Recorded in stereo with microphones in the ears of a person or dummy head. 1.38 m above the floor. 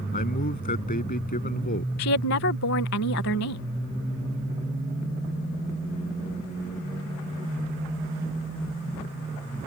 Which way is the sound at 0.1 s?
40° left (ahead or behind).